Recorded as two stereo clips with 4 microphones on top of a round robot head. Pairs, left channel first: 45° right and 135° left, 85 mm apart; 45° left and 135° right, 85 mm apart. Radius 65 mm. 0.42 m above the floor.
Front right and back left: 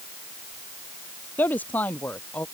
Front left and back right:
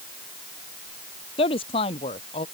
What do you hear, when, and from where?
1.4 s a woman speaking: 25° left; by 2.5 s 30° left